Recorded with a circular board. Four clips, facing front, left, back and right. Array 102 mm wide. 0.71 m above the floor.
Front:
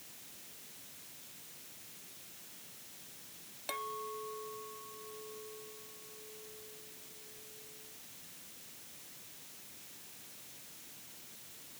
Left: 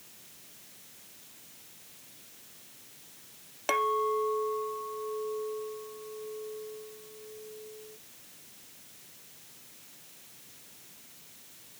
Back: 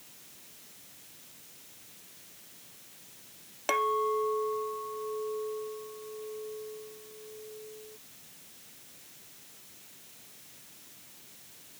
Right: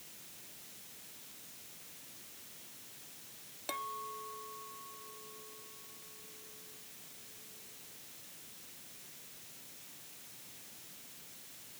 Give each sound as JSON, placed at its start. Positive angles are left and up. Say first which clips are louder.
{"t": 3.7, "sound": "a clink", "louder": "left 14 dB, back 14 dB", "azimuth_deg": 130}